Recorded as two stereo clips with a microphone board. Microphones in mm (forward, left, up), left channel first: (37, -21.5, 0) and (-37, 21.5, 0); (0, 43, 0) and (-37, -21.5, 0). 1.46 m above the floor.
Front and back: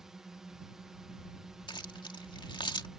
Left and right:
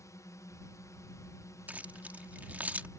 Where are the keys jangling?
50° right.